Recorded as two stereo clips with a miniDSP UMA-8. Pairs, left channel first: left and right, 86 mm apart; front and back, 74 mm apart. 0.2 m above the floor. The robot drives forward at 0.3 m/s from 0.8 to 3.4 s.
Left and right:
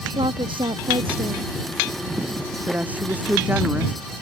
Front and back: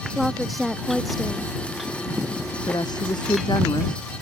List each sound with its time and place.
0.1 s a woman speaking: 90° right
2.7 s a woman speaking: 20° right